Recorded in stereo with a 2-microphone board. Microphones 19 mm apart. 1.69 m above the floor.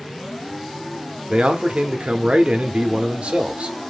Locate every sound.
1.3 s a man speaking: 80° right, 0.6 m